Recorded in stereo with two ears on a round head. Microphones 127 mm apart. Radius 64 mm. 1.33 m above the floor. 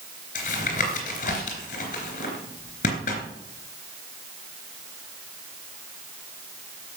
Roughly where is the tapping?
Left.